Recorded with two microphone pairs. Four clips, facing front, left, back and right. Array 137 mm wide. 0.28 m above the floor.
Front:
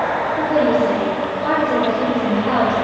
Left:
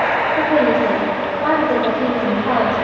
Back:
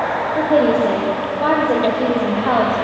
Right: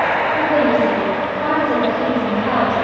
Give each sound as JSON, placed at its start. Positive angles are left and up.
{"t": 0.3, "sound": "a woman speaking", "azimuth_deg": 175, "distance_m": 10.0}